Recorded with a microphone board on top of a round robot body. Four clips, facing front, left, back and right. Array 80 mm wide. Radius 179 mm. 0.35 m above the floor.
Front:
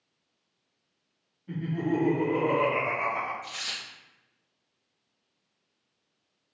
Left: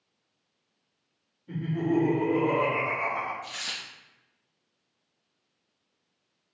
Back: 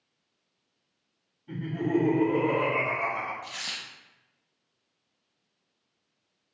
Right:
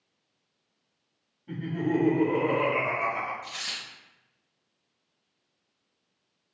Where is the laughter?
90° right, 1.6 m; by 3.3 s 20° right, 1.3 m.